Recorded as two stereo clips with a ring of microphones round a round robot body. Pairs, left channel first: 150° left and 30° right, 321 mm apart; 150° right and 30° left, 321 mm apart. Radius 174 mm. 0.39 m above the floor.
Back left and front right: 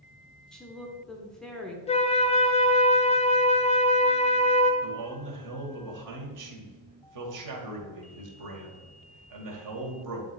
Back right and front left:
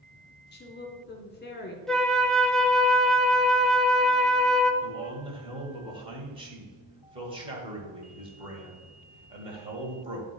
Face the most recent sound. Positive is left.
turn(degrees=-45)